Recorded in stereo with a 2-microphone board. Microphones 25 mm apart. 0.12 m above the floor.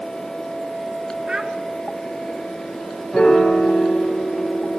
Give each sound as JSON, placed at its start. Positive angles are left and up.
{"t": 1.3, "sound": "a child speaking", "side_deg": -30, "distance_m": 1.0}
{"t": 3.1, "sound": "a piano", "side_deg": 25, "distance_m": 4.0}